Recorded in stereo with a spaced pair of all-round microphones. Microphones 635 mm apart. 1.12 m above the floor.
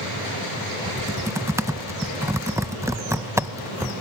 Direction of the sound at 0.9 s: 5° right (ahead or behind).